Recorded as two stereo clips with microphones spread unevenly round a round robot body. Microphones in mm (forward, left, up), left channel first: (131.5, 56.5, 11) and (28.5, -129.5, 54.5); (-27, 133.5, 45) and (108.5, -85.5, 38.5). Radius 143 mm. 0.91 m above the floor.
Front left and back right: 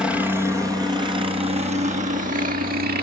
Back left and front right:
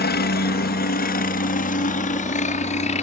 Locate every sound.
0.0 s a helicopter: 145° left; by 3.0 s 175° right